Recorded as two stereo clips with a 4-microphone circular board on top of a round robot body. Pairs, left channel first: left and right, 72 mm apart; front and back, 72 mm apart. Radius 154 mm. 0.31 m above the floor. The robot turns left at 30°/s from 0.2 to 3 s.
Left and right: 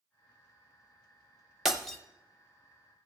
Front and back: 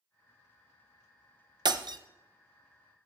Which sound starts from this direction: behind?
Breaking glass, at 1.6 s.